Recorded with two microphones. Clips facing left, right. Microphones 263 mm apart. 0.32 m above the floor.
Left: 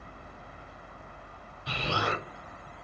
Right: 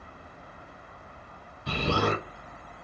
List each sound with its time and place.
1.7 s an explosion: 55° right (ahead or behind), 0.7 m